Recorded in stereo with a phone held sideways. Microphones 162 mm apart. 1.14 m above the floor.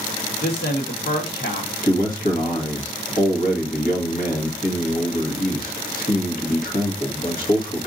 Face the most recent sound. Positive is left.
turn(degrees=60)  # may be behind; listen again after turning